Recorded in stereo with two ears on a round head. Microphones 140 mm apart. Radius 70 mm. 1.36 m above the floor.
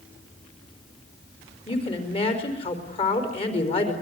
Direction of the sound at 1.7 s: 35° left (ahead or behind).